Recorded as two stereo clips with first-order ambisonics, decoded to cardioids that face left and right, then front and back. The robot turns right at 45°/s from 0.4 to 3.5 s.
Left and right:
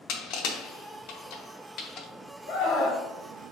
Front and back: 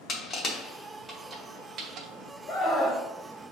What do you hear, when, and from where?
0.1 s crushing: 65° left, 0.9 m; by 2.1 s 140° left, 0.9 m
2.5 s a scream: 65° left, 1.3 m; by 3.0 s 90° left, 1.3 m